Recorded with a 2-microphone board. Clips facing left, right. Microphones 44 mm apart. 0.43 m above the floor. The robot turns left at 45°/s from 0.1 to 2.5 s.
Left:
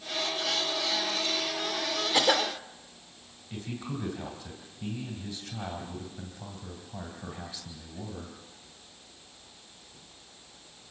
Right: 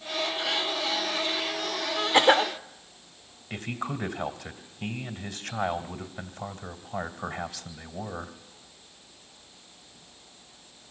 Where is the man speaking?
65° right (ahead or behind), 2 m.